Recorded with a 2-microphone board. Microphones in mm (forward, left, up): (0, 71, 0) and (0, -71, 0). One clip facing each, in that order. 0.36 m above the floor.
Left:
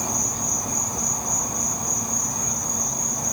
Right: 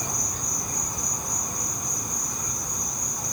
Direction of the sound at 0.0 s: 70° left (ahead or behind).